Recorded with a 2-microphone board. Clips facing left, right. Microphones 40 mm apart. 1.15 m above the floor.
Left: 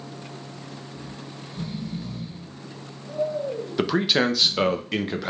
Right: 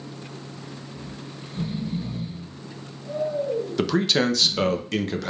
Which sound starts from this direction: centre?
A man speaking, at 3.8 s.